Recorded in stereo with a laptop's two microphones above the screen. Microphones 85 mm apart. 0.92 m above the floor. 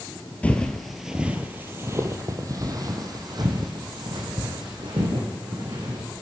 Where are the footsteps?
20° left (ahead or behind), 1.3 m; by 6.1 s 65° right (ahead or behind), 4.5 m.